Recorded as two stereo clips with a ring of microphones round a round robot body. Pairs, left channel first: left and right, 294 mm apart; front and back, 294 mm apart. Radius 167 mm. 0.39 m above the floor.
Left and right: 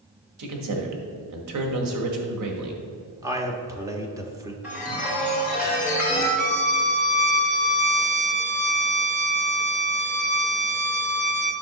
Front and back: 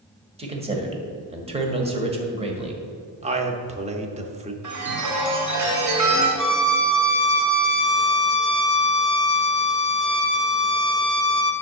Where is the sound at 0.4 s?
110° right, 1.7 m.